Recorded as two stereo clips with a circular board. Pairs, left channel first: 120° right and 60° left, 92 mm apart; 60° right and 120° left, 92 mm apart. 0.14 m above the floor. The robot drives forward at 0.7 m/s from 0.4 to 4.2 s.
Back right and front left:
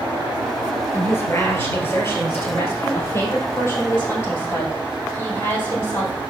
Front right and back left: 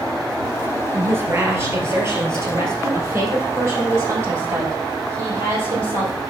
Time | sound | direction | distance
0.9 | a woman speaking | straight behind | 2.0 m